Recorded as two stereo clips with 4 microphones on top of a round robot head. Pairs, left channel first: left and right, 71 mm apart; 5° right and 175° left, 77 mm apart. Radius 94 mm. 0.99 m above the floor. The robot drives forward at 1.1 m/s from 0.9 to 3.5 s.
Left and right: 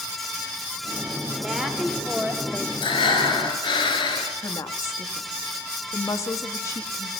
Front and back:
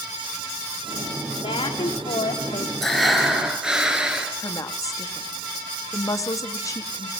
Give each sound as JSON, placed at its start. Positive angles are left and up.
{"t": 1.4, "sound": "a woman speaking", "azimuth_deg": -5, "distance_m": 3.5}
{"t": 2.8, "sound": "breathing", "azimuth_deg": 80, "distance_m": 3.5}
{"t": 4.4, "sound": "a woman speaking", "azimuth_deg": 40, "distance_m": 1.8}